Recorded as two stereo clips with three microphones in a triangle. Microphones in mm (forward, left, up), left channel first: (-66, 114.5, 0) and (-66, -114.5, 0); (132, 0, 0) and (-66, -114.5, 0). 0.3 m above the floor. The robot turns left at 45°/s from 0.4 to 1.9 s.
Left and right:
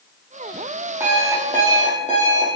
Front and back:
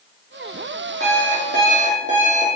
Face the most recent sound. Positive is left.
turn(degrees=150)